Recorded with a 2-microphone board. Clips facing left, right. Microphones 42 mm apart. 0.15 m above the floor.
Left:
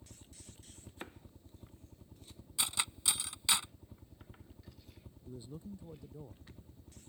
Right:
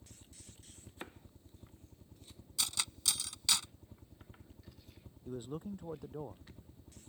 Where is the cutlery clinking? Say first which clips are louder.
Left 2 dB; 20° left (ahead or behind).